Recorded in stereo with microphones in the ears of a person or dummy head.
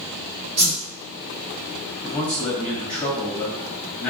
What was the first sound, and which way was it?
A whoosh, 60° right (ahead or behind).